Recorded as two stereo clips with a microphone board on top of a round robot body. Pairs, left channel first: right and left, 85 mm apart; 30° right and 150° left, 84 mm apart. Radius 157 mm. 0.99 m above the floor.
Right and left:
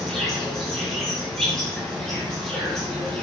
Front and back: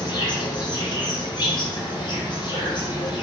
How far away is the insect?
About 4.5 m.